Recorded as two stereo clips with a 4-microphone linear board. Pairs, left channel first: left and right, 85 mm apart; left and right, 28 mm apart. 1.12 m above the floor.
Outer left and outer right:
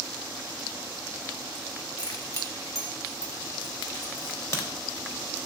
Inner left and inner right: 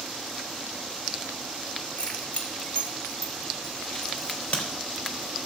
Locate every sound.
2.0 s keys jangling: 45° left (ahead or behind), 3 m; by 4.1 s 30° left (ahead or behind), 5.5 m
4.2 s a crack: 35° left (ahead or behind), 4 m